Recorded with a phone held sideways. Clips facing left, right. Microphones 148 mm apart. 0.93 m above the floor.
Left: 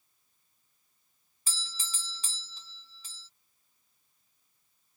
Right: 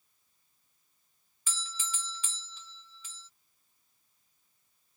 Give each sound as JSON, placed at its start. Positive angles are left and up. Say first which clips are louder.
{"t": 1.5, "sound": "a doorbell", "louder": "right 4 dB", "side_deg": 35}